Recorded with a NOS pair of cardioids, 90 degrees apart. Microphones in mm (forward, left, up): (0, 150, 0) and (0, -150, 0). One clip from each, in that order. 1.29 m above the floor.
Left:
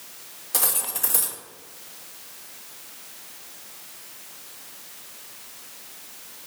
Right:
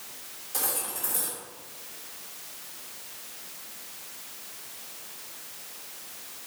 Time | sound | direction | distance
0.5 | cutlery clinking | 60° left | 1.2 m